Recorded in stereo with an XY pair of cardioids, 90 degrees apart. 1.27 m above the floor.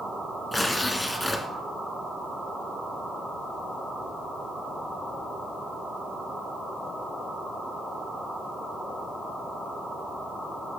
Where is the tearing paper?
10° left, 1.7 m.